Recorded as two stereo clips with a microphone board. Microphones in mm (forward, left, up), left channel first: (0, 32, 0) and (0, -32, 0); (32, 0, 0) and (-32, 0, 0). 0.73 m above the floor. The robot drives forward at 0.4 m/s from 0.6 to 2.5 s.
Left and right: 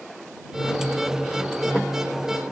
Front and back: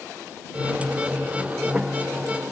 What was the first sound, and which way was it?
Only background noise.